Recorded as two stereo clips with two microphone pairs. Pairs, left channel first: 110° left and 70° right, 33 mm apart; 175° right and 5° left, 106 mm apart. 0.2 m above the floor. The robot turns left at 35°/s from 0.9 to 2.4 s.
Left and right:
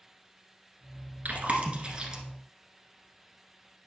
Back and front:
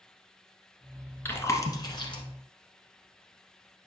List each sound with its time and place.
1.2 s chewing: 105° right, 1.2 m; by 2.2 s 140° right, 1.2 m